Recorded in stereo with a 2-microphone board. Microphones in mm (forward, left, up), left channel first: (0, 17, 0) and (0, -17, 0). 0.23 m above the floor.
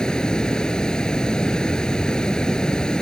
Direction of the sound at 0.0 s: 20° left (ahead or behind).